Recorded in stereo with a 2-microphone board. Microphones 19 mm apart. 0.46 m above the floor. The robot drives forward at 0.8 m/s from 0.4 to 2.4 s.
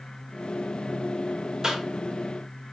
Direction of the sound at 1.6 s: 35° right (ahead or behind).